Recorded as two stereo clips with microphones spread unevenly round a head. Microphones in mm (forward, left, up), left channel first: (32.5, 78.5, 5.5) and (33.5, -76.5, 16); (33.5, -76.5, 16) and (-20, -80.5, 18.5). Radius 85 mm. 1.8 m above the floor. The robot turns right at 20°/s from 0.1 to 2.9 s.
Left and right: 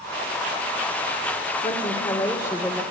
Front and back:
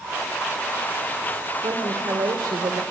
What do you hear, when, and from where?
1.6 s a woman speaking: 150° left, 1.9 m; by 2.8 s 175° left, 1.9 m